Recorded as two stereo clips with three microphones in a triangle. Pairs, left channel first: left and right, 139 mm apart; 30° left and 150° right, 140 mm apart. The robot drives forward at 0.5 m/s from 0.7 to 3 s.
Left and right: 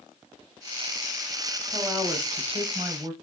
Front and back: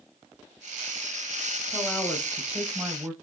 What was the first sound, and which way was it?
A woman speaking, 45° right.